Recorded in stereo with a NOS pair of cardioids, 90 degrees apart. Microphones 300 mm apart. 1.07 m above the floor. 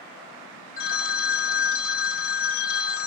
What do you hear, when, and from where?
0.8 s a phone ringing: 45° left, 0.8 m